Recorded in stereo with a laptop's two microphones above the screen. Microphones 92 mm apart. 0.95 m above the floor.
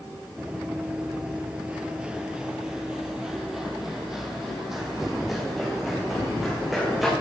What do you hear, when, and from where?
0.4 s running footsteps: 10° right (ahead or behind), 1.1 m; by 7.1 s 5° right (ahead or behind), 3.5 m